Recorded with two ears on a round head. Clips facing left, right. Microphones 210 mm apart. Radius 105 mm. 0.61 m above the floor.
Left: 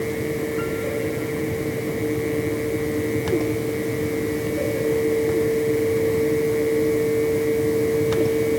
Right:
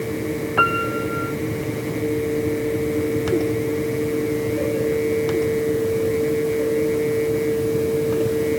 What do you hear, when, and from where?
0.6 s a piano: 85° right